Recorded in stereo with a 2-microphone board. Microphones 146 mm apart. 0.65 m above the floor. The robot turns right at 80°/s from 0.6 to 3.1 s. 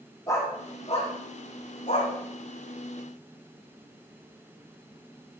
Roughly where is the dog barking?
Left.